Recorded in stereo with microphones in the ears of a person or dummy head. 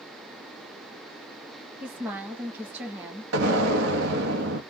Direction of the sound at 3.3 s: 85° right.